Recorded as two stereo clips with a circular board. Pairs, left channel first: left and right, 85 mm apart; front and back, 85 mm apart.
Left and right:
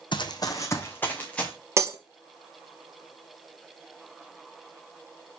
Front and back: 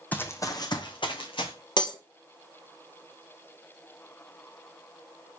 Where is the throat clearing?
I don't hear throat clearing.